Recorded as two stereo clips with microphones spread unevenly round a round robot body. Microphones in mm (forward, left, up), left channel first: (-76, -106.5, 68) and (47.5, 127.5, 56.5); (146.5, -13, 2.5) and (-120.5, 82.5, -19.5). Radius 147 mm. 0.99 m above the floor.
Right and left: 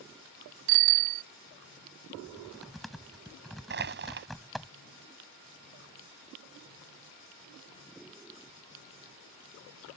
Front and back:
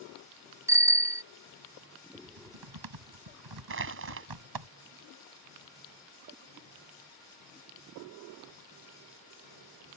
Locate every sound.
0.7 s a bicycle bell: 80° left
2.1 s typing on a keyboard: 155° left
3.7 s crushing: 115° left